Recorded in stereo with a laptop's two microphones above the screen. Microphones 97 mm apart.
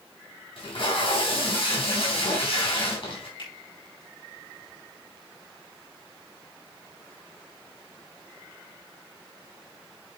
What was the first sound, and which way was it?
Tape being pulled, 70° left (ahead or behind).